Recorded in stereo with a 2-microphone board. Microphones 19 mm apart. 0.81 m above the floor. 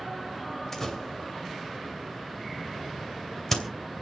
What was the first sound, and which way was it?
A door slam, 20° left (ahead or behind).